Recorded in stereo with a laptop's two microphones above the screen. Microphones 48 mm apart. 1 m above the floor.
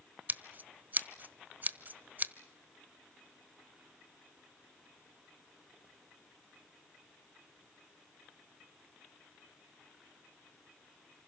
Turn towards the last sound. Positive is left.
turn(degrees=-35)  # may be behind; listen again after turning